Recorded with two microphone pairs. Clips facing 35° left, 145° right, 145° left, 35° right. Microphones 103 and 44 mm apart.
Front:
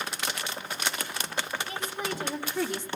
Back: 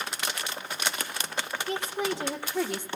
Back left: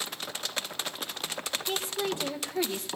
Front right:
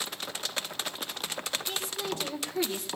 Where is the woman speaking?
165° right, 1.6 m; by 2.9 s 115° right, 1.3 m.